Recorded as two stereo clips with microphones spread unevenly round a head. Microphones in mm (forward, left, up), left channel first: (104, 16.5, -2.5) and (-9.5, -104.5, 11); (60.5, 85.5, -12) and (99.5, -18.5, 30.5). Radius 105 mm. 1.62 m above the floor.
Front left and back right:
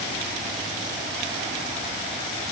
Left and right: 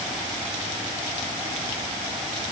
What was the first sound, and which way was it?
Only background noise.